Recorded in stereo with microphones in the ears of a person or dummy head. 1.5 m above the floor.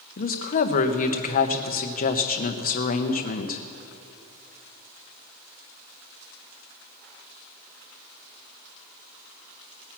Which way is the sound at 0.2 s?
50° left (ahead or behind).